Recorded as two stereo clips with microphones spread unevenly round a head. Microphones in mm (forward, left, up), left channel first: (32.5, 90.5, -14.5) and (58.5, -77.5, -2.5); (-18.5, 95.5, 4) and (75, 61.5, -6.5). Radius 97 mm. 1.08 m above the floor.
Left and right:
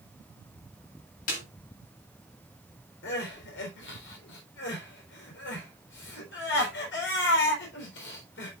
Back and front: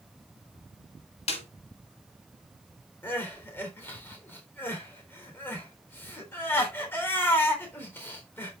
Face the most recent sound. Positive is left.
turn(degrees=90)